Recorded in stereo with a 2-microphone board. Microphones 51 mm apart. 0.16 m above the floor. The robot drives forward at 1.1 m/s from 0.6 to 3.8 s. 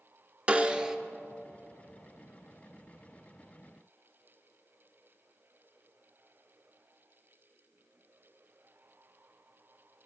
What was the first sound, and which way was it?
A snare drum, 25° right (ahead or behind).